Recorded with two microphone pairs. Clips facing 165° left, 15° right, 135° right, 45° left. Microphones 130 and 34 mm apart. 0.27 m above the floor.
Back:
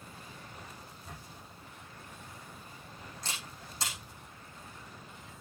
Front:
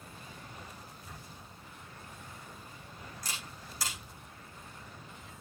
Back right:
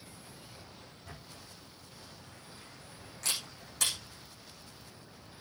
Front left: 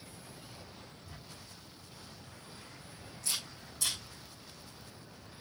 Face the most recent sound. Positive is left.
turn(degrees=-130)